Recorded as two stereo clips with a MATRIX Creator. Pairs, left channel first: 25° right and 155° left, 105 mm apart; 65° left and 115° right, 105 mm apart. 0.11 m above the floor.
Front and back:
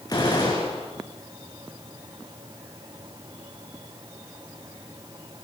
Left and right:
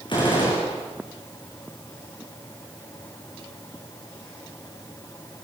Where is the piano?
I don't hear a piano.